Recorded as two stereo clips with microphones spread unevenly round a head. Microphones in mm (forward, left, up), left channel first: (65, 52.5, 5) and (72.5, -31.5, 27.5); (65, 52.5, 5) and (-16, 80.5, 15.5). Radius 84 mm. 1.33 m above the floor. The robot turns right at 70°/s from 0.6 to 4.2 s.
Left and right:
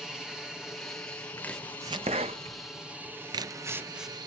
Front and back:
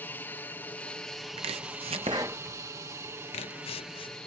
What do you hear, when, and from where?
0.0 s an aircraft: 20° left; by 4.3 s 90° right
1.4 s chopping: 170° left; by 4.2 s 10° left